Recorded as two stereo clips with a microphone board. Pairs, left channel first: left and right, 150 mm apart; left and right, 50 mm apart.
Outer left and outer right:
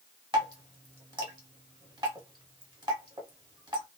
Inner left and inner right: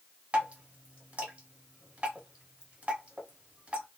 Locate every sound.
0.3 s dripping: 30° right (ahead or behind), 1.0 m